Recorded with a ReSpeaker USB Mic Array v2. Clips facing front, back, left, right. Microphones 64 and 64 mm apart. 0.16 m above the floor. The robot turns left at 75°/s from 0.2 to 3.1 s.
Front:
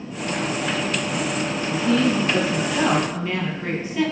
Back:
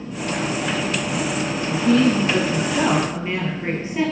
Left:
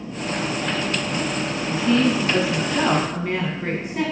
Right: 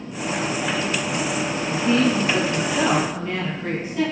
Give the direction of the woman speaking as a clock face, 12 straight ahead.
4 o'clock.